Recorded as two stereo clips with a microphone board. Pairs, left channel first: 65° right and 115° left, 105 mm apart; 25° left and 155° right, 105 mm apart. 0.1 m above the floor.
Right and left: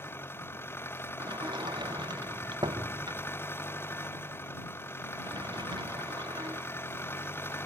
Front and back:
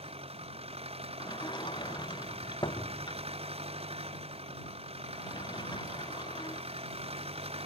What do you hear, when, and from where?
0.0 s an engine running: 135° right
1.2 s a sliding door: 70° left